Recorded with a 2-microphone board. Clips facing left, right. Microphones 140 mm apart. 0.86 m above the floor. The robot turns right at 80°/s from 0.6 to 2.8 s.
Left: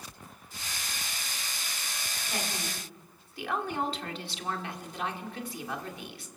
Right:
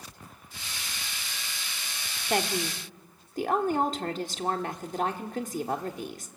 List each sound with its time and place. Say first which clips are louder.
2.3 s a woman speaking: right 9 dB; 85° right, 1.8 m; by 6.3 s 45° right, 1.8 m